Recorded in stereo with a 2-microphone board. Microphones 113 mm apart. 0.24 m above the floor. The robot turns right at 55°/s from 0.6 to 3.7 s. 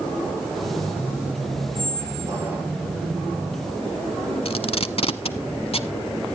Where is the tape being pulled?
60° left (ahead or behind), 0.8 m.